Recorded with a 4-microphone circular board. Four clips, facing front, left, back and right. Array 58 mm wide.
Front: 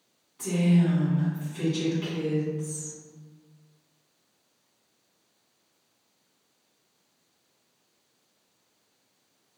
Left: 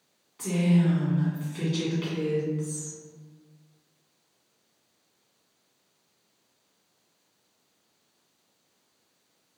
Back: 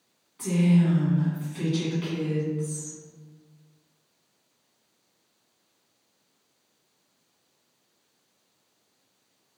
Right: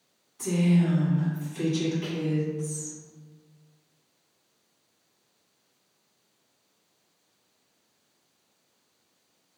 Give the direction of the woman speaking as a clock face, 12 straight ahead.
8 o'clock.